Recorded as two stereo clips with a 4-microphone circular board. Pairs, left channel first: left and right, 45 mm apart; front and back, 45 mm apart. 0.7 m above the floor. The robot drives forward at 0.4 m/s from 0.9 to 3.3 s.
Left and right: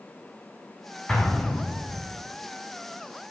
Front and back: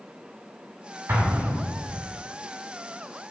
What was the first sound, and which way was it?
An explosion, 155° left.